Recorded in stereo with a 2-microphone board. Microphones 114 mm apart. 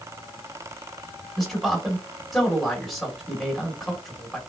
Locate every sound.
1.4 s a man speaking: centre (ahead or behind), 1.5 m